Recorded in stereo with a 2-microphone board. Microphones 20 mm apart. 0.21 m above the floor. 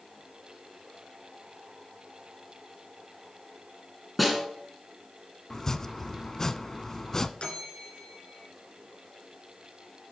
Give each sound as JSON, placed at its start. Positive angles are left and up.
{"t": 4.2, "sound": "a snare drum", "side_deg": 0, "distance_m": 2.5}
{"t": 5.5, "sound": "chopping", "side_deg": 25, "distance_m": 0.5}
{"t": 7.4, "sound": "a bell", "side_deg": 65, "distance_m": 2.5}